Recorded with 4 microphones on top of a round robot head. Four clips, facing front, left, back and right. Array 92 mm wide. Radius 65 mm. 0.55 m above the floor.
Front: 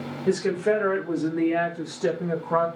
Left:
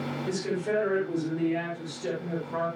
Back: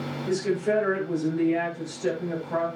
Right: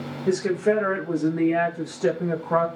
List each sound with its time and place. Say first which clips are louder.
0.3 s a woman speaking: right 9 dB, front 3 dB; 45° right, 4 m; by 2.7 s 70° right, 4.5 m